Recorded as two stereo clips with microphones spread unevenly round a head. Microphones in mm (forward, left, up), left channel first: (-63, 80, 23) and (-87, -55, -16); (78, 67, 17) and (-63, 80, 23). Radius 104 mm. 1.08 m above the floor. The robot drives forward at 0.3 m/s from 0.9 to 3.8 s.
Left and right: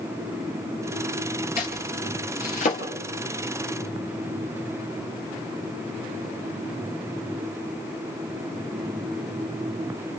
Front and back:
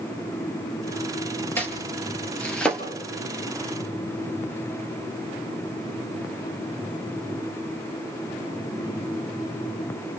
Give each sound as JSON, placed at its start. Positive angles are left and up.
{"t": 1.6, "sound": "chopping", "azimuth_deg": 70, "distance_m": 3.5}